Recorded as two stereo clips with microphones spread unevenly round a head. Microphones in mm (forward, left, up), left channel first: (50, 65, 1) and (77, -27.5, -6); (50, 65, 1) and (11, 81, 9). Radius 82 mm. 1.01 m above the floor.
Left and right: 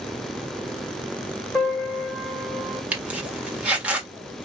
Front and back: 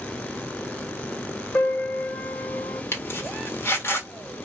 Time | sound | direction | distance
1.6 | a piano | 30° left | 1.5 m
2.9 | a zipper | 5° left | 1.6 m